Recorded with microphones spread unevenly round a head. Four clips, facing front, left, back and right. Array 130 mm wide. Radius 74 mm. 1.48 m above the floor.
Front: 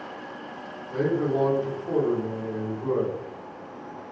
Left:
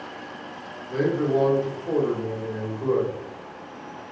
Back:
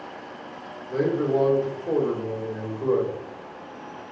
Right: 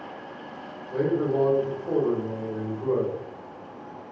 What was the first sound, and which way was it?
A man speaking, 170° left.